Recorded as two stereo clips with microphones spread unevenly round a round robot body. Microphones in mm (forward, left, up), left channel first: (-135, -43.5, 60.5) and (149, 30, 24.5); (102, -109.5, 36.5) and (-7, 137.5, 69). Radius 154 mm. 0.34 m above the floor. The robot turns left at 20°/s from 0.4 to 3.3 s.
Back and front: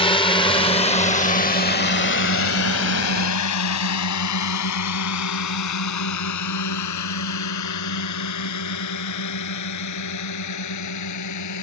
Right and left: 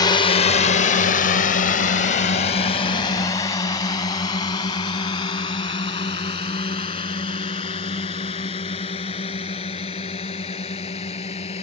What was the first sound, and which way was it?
A drone, 100° right.